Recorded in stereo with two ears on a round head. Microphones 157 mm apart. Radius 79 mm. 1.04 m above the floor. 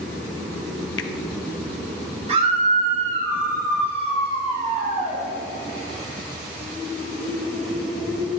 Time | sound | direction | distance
1.0 | a finger snap | 80° left | 0.9 m
2.3 | a scream | 40° right (ahead or behind) | 6 m